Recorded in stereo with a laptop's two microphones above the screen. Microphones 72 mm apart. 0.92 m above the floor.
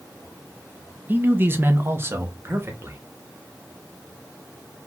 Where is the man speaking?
25° right (ahead or behind), 0.8 m; by 3.0 s 35° right (ahead or behind), 1.7 m.